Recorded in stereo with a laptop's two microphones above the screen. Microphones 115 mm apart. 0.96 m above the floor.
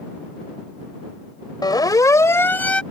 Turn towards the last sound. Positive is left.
turn(degrees=10)  # may be behind; listen again after turning